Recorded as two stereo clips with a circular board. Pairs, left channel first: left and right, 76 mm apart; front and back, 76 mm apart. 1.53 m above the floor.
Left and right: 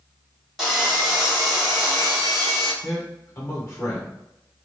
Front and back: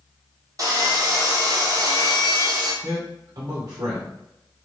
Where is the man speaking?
150° left, 0.7 m.